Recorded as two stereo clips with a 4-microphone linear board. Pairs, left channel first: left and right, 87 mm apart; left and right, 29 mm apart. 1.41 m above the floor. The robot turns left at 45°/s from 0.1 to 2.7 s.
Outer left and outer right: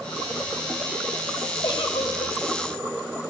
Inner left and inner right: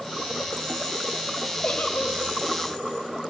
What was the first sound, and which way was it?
A giggle, 125° left.